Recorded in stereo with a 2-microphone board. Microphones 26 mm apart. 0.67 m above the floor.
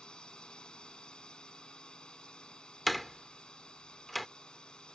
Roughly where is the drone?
Left.